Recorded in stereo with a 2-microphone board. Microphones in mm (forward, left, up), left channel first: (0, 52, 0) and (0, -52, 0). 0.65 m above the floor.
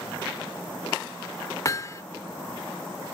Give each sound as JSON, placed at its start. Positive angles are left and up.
{"t": 1.6, "sound": "hammering", "side_deg": 35}